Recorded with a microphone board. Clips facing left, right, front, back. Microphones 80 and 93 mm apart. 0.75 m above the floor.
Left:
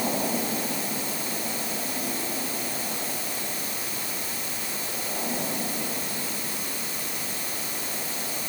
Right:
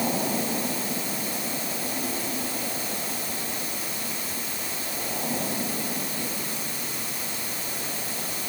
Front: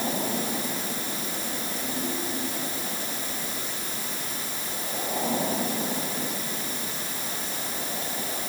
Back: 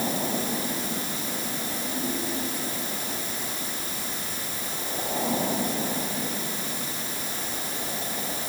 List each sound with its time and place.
Only background noise.